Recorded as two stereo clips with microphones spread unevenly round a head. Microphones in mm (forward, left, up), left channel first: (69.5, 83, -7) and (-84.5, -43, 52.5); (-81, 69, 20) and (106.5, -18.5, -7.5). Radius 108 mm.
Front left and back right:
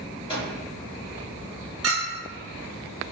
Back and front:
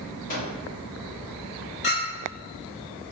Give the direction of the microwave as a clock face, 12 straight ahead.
9 o'clock.